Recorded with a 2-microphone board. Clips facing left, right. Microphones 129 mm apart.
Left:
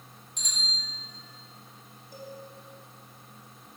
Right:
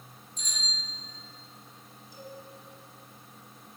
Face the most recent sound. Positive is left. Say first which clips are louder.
# left 2 dB
turn(degrees=55)  # may be behind; listen again after turning